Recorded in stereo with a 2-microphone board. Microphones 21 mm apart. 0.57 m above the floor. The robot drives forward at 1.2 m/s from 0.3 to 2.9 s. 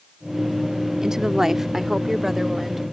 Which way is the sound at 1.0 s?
30° right (ahead or behind).